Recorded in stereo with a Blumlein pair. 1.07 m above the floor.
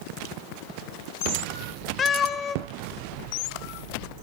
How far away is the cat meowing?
About 0.8 m.